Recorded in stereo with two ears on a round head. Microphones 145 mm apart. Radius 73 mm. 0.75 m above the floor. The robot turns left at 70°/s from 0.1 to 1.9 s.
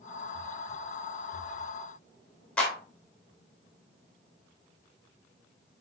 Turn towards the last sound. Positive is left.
turn(degrees=10)  # may be behind; listen again after turning